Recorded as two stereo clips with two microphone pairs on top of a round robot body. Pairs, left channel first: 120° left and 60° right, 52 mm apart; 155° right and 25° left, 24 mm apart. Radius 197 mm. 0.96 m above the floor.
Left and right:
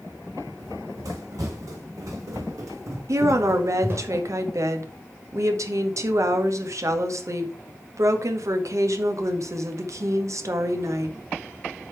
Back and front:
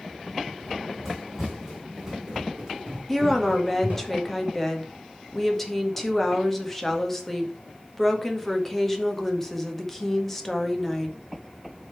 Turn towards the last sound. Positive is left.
turn(degrees=-80)